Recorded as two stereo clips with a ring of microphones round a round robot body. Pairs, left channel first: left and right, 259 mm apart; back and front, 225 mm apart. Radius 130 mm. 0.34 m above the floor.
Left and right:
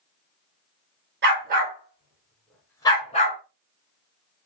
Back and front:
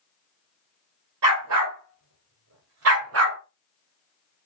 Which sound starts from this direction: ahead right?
A dog barking, at 1.2 s.